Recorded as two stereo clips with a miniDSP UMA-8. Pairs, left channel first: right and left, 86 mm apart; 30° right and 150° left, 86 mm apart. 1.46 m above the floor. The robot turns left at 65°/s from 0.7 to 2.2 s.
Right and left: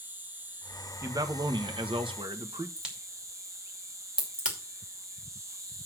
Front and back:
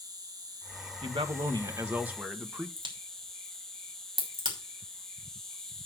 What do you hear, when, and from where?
0.0 s an insect: 150° left, 1.1 m; by 5.9 s 50° left, 1.1 m
1.0 s a man speaking: 150° left, 1.2 m; by 2.7 s 70° left, 1.2 m
2.8 s a crack: 170° left, 2.5 m